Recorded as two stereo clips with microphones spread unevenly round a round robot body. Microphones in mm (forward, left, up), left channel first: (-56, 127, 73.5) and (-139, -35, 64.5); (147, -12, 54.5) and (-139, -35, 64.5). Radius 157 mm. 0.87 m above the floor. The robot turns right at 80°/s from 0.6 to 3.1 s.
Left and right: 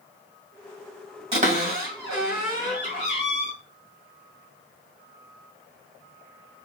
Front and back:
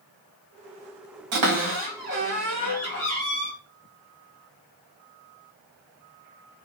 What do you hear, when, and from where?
1.3 s a cupboard door: 175° right, 1.7 m; by 3.5 s 30° right, 1.7 m